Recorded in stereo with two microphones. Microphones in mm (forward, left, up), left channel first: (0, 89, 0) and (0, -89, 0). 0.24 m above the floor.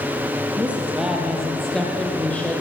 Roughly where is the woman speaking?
Centre.